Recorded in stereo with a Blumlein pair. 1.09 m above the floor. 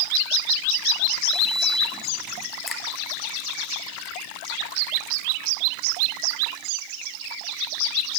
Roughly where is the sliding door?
Ahead.